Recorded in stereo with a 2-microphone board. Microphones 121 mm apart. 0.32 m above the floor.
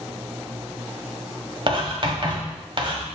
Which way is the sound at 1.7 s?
45° right (ahead or behind).